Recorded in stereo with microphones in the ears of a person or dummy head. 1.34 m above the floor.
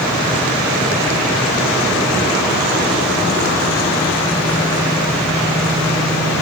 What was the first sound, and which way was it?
Only background noise.